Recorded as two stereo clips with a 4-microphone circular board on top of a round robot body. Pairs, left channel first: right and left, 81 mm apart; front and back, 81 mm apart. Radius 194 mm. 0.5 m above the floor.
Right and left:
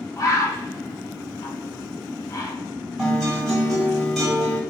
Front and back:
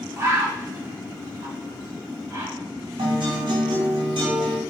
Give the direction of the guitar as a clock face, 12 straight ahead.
6 o'clock.